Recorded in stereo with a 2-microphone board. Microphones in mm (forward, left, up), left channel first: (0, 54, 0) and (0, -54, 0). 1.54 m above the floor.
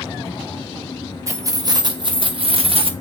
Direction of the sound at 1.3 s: 30° right (ahead or behind).